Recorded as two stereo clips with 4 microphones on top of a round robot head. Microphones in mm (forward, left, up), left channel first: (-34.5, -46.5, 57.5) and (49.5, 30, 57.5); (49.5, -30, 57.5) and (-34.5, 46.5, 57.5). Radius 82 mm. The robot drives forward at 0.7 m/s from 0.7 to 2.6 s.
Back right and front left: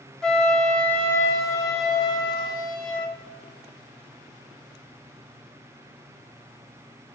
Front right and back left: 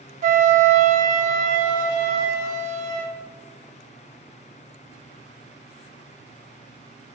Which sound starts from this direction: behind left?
A flute, at 0.2 s.